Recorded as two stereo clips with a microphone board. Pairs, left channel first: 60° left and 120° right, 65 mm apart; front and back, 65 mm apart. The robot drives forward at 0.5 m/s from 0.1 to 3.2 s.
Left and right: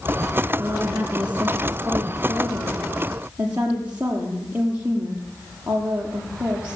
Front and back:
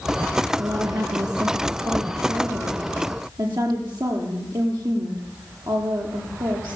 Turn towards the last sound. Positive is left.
turn(degrees=175)